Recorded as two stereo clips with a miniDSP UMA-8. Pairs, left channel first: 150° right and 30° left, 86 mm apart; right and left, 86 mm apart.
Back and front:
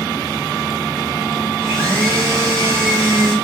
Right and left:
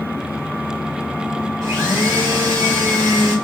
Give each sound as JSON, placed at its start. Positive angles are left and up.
{"t": 1.6, "sound": "a blender", "azimuth_deg": 130, "distance_m": 2.5}